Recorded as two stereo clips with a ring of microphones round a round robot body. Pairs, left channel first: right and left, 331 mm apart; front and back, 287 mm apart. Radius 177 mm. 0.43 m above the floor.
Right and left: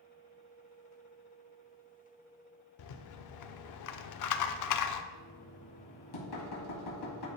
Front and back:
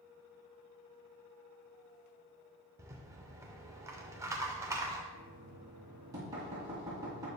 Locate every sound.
2.8 s a rattle: 100° right, 0.5 m
5.1 s knocking: 100° right, 2 m